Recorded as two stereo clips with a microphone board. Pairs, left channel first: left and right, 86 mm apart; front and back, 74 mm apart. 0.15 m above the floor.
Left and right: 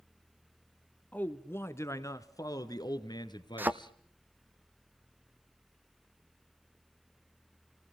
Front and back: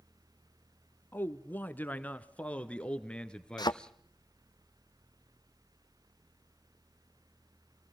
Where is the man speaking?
35° left, 1.2 m; by 3.9 s 80° left, 2 m.